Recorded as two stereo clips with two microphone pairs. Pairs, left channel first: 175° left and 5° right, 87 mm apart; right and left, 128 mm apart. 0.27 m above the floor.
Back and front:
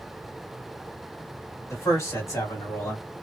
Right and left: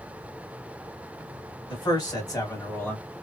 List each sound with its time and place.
1.7 s a man speaking: 135° right, 2.0 m; by 3.2 s 160° right, 1.4 m